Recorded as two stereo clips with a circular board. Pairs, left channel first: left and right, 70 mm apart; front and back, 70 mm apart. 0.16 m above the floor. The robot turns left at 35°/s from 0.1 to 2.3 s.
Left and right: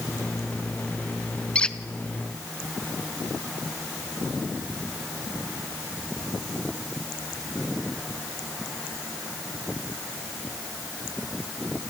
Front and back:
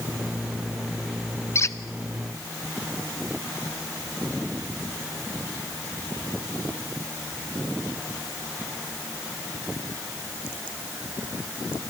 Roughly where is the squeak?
Ahead left.